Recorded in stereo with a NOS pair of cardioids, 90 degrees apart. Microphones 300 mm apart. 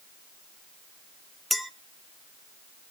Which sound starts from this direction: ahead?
A clink, at 1.5 s.